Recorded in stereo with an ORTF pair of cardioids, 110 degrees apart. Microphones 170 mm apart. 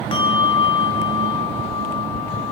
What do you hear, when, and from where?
0.1 s a bell: 30° left, 1.4 m